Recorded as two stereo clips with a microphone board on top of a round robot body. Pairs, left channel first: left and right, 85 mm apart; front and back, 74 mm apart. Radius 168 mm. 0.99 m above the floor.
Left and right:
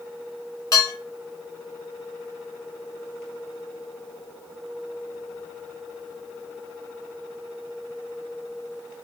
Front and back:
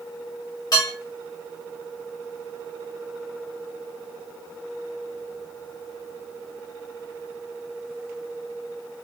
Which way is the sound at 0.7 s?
40° left.